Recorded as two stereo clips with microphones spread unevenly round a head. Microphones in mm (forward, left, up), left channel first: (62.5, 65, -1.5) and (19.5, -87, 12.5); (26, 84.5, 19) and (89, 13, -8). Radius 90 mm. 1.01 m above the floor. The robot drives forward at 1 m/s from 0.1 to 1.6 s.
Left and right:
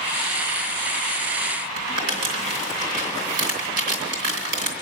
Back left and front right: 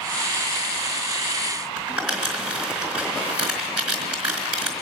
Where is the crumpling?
115° right, 2.5 m.